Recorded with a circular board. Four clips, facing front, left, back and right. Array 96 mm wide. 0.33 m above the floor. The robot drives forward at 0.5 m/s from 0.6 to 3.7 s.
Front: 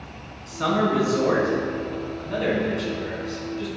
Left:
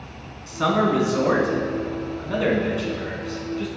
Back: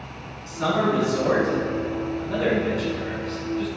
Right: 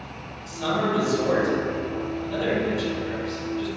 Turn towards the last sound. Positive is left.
turn(degrees=110)